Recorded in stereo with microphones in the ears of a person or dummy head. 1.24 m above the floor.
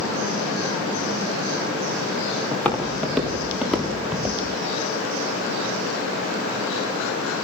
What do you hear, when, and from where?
2.5 s footsteps: 10° left (ahead or behind), 4.5 m; by 4.4 s centre (ahead or behind), 6 m